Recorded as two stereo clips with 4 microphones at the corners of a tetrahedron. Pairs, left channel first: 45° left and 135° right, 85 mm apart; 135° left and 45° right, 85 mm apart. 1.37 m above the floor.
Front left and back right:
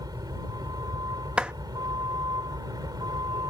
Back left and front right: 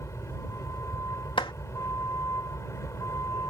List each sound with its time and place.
0.0 s a vehicle: 175° right
1.4 s a clap: 145° left